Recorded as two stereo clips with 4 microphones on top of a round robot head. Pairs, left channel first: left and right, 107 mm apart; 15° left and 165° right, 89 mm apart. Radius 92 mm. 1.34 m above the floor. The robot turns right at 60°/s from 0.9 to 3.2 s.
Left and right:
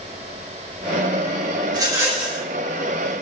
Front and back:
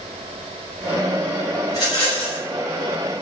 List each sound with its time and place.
1.7 s a rattle: 45° right, 4.5 m; by 2.4 s straight ahead, 4.5 m